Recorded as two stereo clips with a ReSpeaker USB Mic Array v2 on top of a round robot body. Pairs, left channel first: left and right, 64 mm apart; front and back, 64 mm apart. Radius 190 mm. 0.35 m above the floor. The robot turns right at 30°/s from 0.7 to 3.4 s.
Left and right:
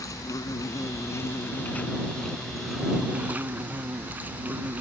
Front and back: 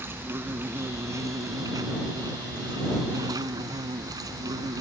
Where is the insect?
125° left; by 4.8 s 155° right.